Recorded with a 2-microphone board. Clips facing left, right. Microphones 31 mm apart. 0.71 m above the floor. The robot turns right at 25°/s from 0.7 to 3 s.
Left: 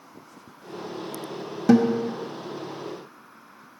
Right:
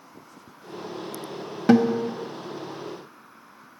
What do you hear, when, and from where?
1.7 s a guitar: 30° right (ahead or behind), 1.2 m; by 2.1 s 25° right (ahead or behind), 1.2 m